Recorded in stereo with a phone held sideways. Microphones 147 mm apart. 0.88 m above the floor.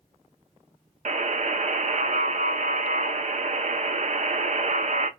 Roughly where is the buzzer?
Right.